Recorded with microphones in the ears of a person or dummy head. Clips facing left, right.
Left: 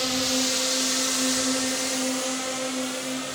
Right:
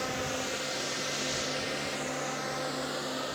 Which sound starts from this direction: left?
A drone, at 0.0 s.